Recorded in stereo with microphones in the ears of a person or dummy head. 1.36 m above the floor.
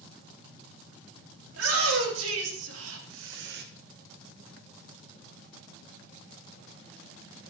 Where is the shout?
85° right, 4 m; by 3.6 s 50° right (ahead or behind), 1.3 m.